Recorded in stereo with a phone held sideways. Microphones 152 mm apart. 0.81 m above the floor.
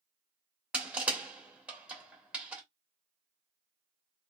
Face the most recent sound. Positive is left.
turn(degrees=-10)  # may be behind; listen again after turning